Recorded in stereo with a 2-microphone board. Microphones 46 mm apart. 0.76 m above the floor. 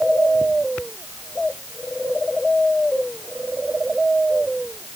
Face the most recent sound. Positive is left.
No sound to turn to.